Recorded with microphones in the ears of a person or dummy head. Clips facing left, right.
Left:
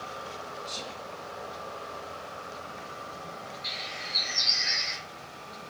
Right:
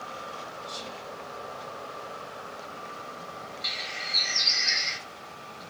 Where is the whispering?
75° left (ahead or behind), 2.0 m.